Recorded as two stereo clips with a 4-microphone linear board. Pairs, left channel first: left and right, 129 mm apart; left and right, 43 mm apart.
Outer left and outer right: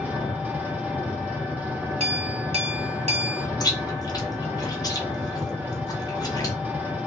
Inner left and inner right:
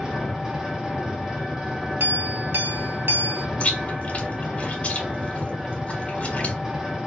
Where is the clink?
60° right (ahead or behind), 1.0 m.